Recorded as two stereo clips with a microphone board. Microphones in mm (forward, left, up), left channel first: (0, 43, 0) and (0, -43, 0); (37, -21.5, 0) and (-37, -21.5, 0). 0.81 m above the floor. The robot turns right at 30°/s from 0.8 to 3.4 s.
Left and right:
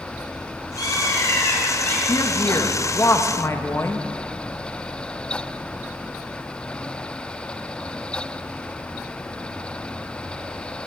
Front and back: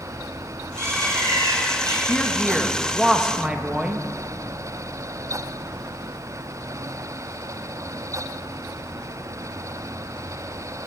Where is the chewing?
No chewing in this recording.